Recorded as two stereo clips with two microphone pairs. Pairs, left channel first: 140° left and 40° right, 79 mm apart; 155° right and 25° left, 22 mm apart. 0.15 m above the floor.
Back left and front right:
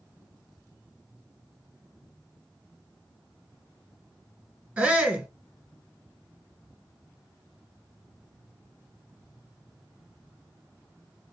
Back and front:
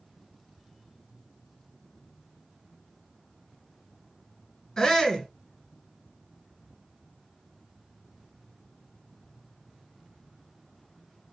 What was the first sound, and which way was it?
A shout, 115° right.